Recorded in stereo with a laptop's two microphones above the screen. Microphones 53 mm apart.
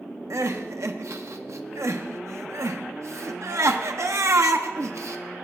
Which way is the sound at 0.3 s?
65° right (ahead or behind).